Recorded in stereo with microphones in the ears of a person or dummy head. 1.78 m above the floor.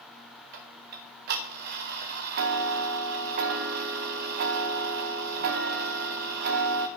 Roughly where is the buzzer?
I don't hear a buzzer.